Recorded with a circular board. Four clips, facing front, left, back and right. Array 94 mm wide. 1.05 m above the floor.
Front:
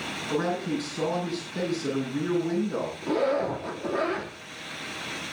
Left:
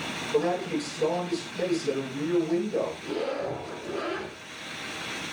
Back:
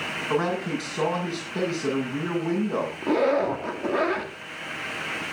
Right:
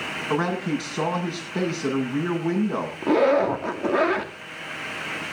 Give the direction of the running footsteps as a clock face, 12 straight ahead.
I don't hear running footsteps.